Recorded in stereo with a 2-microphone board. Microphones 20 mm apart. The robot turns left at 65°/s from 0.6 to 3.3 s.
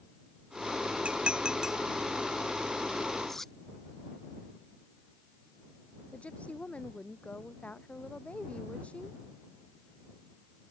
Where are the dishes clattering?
65° right (ahead or behind); by 1.8 s 15° right (ahead or behind).